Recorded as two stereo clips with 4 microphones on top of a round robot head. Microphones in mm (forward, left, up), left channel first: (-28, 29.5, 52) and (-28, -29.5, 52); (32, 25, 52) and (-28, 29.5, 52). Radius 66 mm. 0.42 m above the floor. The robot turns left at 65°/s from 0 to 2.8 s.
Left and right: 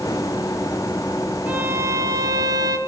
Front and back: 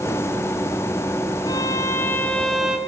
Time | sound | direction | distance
1.5 | a violin | 20° right | 2.5 m